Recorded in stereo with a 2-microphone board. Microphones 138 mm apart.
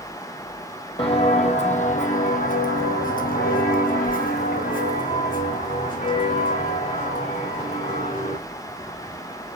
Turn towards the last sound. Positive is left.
turn(degrees=60)  # may be behind; listen again after turning